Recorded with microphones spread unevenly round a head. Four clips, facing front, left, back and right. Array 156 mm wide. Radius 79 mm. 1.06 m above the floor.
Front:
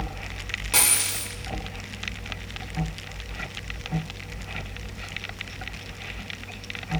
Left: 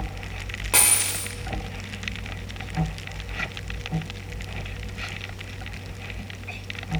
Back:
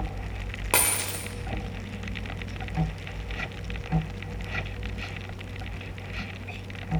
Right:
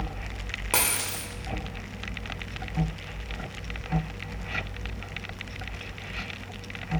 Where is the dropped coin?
165° right, 0.9 m.